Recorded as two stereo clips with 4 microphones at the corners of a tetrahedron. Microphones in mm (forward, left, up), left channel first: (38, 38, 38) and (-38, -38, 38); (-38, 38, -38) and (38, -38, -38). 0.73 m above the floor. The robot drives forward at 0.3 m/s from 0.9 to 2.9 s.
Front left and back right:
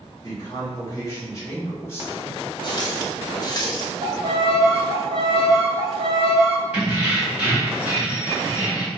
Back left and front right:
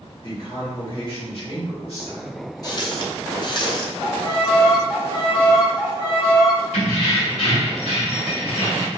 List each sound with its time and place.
0.2 s a man speaking: 100° left, 1.8 m; by 2.4 s 115° left, 2.0 m
2.6 s a running tap: 85° left, 0.7 m; by 3.9 s 95° left, 0.7 m
4.0 s a violin: straight behind, 1.5 m
6.7 s keys jangling: 145° left, 1.8 m